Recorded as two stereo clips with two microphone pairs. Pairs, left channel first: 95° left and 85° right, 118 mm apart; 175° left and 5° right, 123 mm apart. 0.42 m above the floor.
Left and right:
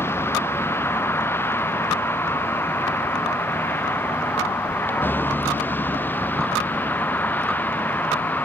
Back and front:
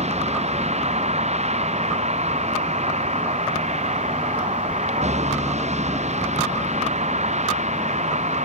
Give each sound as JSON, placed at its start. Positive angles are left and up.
{"t": 0.0, "sound": "a vehicle", "azimuth_deg": 25}